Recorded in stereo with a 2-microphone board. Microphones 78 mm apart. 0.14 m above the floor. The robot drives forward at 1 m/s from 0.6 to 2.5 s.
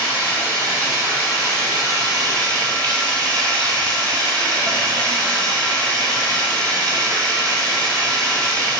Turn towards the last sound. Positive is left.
turn(degrees=-50)  # may be behind; listen again after turning